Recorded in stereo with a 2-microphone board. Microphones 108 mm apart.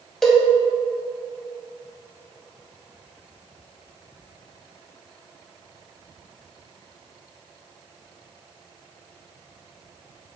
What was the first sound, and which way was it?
A cowbell, 5° left (ahead or behind).